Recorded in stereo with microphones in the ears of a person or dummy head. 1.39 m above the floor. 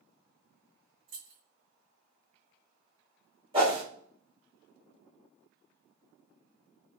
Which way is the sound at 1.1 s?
55° right (ahead or behind).